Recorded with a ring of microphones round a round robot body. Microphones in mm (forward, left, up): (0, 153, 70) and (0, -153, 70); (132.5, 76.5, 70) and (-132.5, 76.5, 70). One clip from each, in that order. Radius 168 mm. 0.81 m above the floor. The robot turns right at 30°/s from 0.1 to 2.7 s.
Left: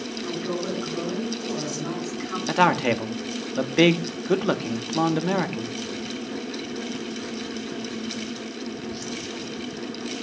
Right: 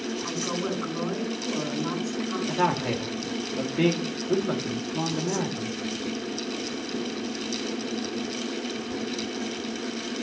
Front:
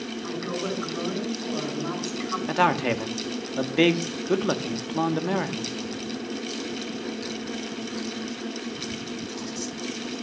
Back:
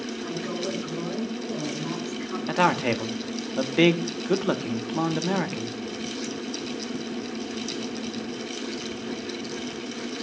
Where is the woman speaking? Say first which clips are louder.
Left 2 dB, front 1 dB; 50° right, 9.5 m; by 2.4 s 15° left, 9.5 m.